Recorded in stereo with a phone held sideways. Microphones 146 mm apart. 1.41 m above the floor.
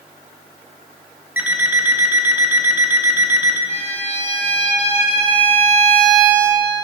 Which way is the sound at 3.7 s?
45° left (ahead or behind).